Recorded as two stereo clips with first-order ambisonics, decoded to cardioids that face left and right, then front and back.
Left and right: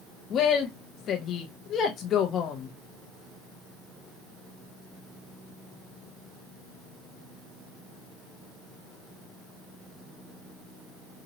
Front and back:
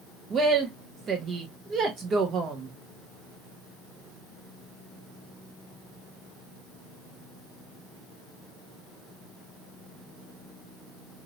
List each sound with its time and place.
0.3 s a woman speaking: 130° left, 0.5 m